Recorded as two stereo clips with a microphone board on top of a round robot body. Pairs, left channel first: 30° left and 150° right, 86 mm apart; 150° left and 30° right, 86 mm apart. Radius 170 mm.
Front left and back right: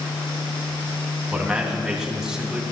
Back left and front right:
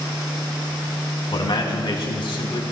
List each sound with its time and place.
1.3 s a man speaking: 130° left, 3 m